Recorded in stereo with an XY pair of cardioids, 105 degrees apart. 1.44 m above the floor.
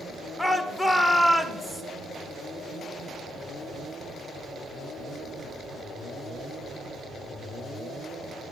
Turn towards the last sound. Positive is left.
turn(degrees=10)